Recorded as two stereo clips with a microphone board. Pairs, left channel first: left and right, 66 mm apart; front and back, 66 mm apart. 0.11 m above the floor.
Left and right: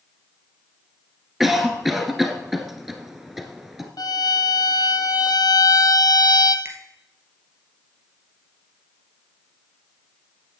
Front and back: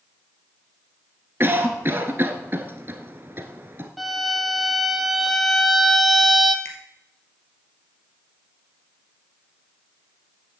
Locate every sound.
1.4 s a cough: 175° right, 1.2 m
4.0 s a violin: 90° left, 0.7 m
6.7 s a finger snap: 45° right, 2.5 m